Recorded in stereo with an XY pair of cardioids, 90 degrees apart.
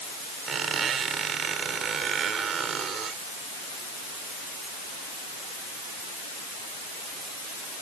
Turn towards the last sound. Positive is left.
turn(degrees=-60)